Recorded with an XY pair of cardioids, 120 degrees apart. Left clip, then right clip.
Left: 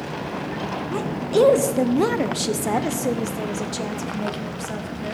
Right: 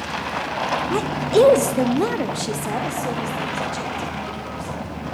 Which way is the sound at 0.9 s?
40° right.